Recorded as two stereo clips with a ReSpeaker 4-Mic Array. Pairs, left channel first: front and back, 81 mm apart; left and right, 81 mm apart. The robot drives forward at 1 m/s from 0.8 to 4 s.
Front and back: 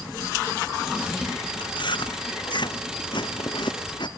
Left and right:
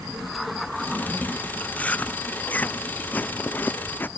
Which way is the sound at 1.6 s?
15° left.